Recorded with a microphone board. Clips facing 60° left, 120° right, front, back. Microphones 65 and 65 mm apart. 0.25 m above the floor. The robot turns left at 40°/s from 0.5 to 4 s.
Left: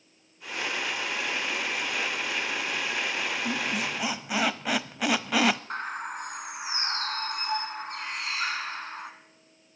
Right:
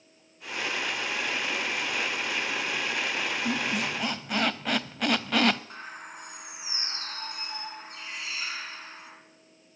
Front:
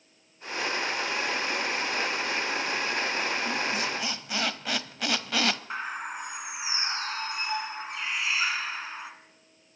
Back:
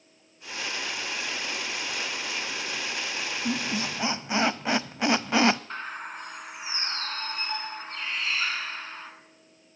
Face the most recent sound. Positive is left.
turn(degrees=80)